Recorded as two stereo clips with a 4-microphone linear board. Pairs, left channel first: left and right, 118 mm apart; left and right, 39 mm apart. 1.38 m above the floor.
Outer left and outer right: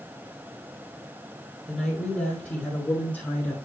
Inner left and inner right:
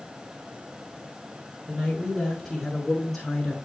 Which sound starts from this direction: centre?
A woman speaking, at 1.7 s.